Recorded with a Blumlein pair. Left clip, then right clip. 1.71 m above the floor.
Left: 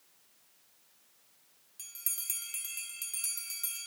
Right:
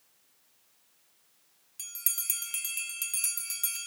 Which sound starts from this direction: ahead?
A bell, at 1.8 s.